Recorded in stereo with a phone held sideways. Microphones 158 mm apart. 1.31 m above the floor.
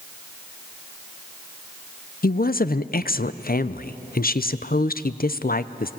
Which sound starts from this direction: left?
A woman speaking, at 2.2 s.